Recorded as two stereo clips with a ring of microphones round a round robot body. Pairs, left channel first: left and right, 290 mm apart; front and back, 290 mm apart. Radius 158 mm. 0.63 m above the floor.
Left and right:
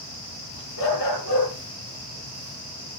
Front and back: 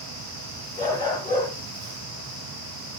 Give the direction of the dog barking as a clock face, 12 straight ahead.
9 o'clock.